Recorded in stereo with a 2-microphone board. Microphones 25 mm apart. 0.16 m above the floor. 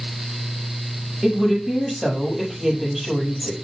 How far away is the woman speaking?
About 4.5 m.